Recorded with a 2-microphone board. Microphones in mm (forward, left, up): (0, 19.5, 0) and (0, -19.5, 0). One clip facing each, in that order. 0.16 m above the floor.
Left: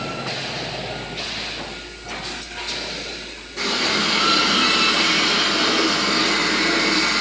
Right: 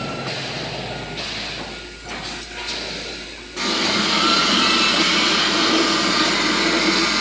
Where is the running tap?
50° right (ahead or behind), 3.5 m.